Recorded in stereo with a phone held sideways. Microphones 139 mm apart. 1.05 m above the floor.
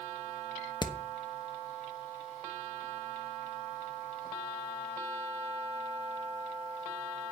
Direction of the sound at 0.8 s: 30° left (ahead or behind).